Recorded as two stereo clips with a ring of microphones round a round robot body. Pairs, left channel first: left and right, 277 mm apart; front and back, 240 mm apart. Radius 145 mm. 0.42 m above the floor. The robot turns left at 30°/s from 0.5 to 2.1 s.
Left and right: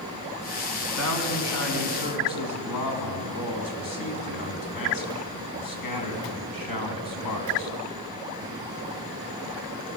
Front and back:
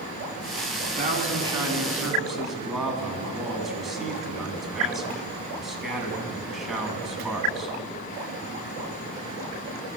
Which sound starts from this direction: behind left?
A man speaking, at 0.8 s.